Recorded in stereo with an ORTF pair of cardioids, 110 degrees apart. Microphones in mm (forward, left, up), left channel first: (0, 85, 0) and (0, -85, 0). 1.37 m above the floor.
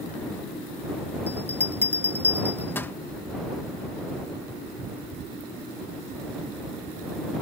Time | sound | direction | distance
1.3 | a bell | 10° left | ?